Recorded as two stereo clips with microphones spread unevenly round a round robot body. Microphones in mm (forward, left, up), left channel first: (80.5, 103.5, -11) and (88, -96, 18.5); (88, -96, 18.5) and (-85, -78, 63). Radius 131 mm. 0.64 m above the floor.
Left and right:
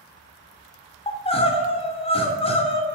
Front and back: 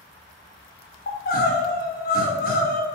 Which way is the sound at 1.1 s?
30° left.